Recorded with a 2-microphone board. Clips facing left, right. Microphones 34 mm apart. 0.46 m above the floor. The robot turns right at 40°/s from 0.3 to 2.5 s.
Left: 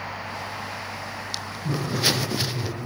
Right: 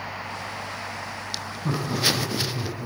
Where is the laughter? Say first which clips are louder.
Even; 55° right (ahead or behind), 3 m; by 2.9 s 25° right (ahead or behind), 3 m.